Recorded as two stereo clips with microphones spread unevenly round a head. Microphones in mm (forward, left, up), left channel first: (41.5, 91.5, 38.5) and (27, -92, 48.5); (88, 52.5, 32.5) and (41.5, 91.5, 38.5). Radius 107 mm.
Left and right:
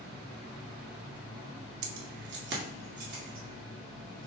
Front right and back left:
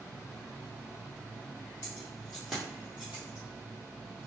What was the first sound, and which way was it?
Keys jangling, 105° right.